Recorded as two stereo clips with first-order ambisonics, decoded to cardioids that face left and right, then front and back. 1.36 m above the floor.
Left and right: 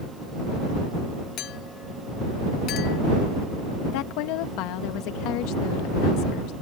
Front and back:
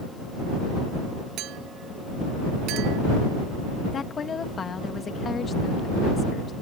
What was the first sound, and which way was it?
A clink, 140° left.